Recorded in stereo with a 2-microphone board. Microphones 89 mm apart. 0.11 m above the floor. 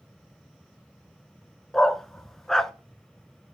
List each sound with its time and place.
1.7 s a dog barking: 5° left (ahead or behind), 0.5 m